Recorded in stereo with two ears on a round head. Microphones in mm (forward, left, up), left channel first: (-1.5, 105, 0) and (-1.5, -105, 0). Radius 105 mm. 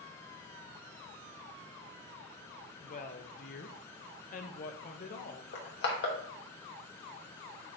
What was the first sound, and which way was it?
A woman speaking, 35° left (ahead or behind).